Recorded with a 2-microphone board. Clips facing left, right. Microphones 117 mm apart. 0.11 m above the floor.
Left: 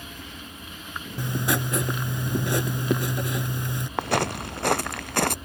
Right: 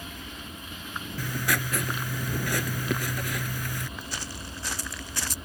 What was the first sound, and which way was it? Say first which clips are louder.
Writing: left 4 dB; 25° left (ahead or behind).